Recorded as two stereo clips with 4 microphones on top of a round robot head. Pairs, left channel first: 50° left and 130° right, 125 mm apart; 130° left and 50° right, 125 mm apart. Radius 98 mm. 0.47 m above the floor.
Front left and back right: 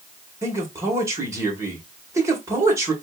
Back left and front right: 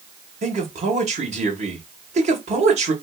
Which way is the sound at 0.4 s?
65° right.